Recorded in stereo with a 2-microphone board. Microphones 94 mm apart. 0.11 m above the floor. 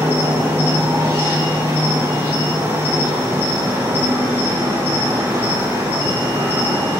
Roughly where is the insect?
Right.